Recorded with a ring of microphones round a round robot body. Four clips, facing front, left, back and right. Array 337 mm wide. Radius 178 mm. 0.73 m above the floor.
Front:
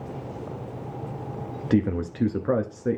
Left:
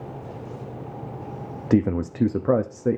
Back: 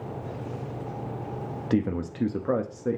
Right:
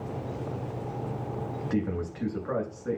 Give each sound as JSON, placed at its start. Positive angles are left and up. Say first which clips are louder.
{"t": 1.7, "sound": "a man speaking", "louder": "left 10 dB, front 3 dB", "azimuth_deg": 75, "distance_m": 1.0}